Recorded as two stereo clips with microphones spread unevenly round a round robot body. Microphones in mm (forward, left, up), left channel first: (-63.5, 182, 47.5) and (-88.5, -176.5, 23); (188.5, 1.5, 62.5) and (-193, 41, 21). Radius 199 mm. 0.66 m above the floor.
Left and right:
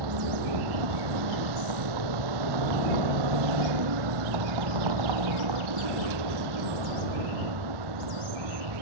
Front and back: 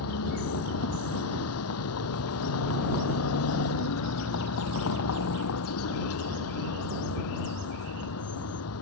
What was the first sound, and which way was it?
A vehicle, 60° right.